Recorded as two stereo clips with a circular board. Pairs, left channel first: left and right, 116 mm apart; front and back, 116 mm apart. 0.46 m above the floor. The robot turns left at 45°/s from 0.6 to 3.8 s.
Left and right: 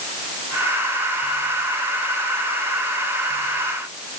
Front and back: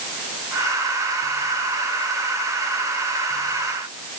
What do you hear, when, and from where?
Only background noise.